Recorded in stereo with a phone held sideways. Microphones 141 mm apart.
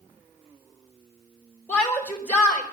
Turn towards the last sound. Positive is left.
turn(degrees=10)  # may be behind; listen again after turning